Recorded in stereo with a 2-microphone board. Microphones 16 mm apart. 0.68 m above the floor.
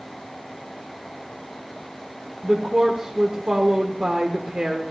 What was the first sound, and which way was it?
A woman speaking, 70° right (ahead or behind).